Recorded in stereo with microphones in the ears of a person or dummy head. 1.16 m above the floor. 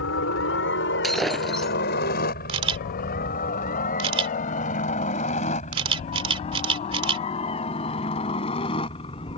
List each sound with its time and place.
0.0 s a helicopter: 70° left (ahead or behind); by 9.4 s 30° left (ahead or behind)
1.0 s breaking glass: centre (ahead or behind)
2.5 s a camera shutter: 30° right (ahead or behind)